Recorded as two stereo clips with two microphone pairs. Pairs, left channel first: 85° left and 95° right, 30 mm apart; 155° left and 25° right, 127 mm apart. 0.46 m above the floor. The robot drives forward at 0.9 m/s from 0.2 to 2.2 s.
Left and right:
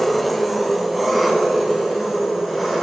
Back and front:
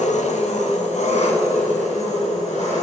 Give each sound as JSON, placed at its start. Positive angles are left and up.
{"t": 0.0, "sound": "an engine running", "azimuth_deg": 175, "distance_m": 0.9}